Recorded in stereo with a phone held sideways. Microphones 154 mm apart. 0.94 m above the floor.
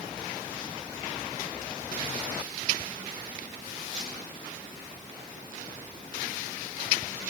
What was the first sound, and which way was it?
Only background noise.